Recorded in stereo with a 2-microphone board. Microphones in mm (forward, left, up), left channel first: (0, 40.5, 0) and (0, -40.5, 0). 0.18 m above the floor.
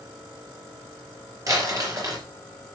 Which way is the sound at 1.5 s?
45° right (ahead or behind).